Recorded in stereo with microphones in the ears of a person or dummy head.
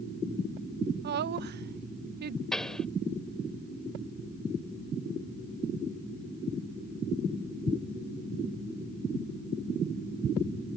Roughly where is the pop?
Centre.